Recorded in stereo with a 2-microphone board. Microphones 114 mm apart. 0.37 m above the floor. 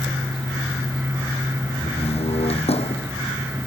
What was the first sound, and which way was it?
A door slam, 60° left (ahead or behind).